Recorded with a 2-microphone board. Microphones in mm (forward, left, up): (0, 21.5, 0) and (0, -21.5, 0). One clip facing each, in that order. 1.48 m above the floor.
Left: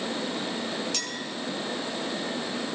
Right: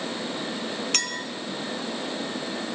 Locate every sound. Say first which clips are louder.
0.9 s a clink: right 4 dB; 55° right (ahead or behind), 1.0 m